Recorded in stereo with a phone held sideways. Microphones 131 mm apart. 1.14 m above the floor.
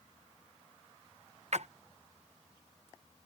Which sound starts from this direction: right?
A splash, at 1.5 s.